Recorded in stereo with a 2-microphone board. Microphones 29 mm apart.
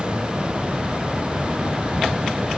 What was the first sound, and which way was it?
An insect, 30° right (ahead or behind).